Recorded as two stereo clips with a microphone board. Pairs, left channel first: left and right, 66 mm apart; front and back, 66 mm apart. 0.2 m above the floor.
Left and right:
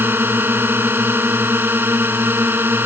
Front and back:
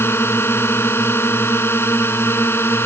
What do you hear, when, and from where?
0.0 s a drone: 40° right